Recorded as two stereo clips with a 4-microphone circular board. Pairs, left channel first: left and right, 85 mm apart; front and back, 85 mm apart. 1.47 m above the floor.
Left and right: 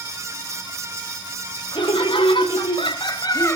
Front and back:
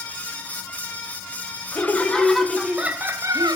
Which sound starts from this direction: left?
Laughter, at 1.7 s.